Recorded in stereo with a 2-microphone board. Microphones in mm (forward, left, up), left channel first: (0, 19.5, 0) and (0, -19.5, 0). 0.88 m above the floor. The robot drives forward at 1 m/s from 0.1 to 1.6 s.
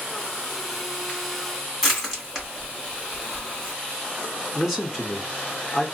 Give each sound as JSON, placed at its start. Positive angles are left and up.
{"t": 1.8, "sound": "crushing", "side_deg": -5, "distance_m": 2.0}
{"t": 4.5, "sound": "a man speaking", "side_deg": -5, "distance_m": 1.0}